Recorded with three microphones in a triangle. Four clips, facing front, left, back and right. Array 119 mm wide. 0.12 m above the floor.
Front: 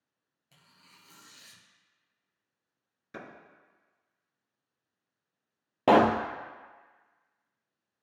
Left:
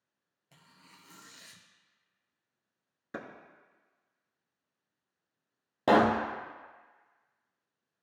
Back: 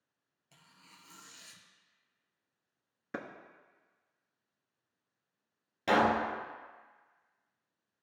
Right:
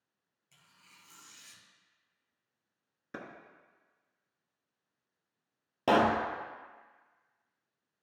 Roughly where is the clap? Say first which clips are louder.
Left 3 dB, back 3 dB; behind.